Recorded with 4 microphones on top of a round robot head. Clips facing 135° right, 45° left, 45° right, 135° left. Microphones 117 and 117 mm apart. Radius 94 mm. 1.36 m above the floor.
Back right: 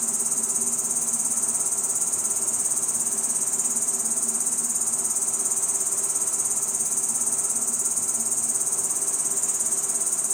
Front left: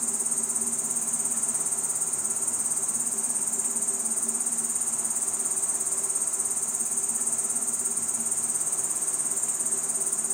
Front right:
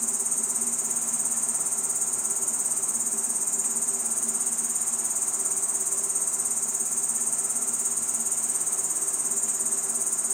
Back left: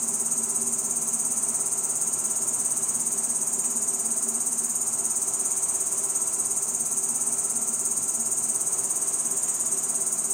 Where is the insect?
175° right, 0.7 m.